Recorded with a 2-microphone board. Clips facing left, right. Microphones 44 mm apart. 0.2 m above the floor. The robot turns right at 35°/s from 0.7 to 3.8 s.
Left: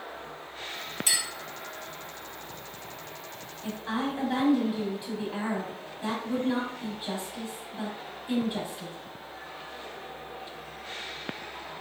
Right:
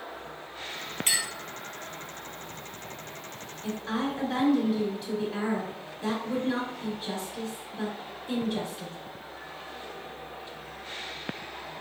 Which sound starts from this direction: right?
A clink, at 1.1 s.